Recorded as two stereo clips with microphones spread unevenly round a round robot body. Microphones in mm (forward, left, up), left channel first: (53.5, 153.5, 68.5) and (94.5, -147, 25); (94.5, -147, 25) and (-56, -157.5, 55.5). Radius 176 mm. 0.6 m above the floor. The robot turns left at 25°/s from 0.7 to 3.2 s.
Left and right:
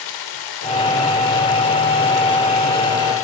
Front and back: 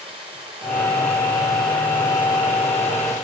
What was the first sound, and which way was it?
Running water, 110° left.